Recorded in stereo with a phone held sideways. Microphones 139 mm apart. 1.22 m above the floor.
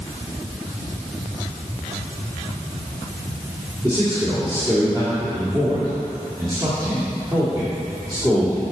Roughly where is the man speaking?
Right.